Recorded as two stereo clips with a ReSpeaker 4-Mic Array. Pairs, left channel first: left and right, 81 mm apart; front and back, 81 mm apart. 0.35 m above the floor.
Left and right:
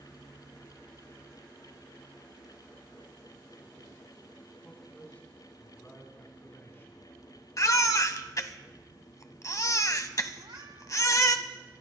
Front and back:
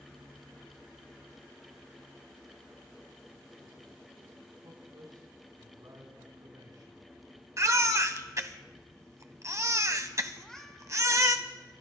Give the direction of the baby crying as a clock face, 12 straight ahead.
8 o'clock.